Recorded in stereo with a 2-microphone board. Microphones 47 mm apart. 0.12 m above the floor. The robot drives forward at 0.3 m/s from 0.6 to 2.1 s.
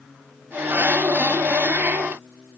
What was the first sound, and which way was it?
Only background noise.